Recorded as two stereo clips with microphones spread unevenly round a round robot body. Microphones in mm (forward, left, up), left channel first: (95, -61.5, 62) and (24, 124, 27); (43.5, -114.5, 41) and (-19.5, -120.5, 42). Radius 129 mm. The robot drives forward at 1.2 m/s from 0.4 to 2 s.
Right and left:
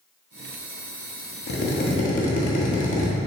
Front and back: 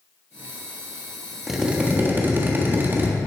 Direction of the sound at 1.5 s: 90° right.